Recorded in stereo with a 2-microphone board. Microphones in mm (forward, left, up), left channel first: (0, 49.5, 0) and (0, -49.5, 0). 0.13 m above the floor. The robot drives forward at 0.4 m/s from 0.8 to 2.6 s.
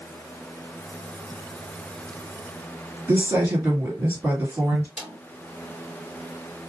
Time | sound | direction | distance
3.1 | a woman speaking | 20° right (ahead or behind) | 2 m
5.0 | a snare drum | 5° right (ahead or behind) | 2.5 m